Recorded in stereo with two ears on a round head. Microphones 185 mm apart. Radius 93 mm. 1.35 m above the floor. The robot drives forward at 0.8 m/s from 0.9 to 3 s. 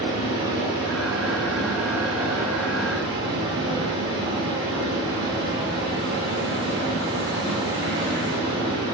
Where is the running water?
25° right (ahead or behind), 1.3 m.